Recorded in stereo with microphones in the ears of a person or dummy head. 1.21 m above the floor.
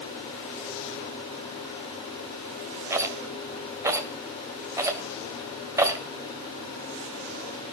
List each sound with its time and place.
2.9 s a rattle: 10° right (ahead or behind), 1.9 m